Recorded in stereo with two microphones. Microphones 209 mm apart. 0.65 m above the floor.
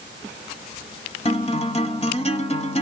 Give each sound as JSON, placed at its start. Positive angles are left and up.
{"t": 1.2, "sound": "a guitar", "side_deg": 30, "distance_m": 1.0}